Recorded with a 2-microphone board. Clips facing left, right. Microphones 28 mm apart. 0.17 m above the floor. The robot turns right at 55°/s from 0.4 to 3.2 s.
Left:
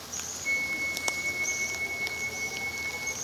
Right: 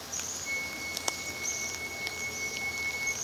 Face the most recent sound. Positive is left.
turn(degrees=-165)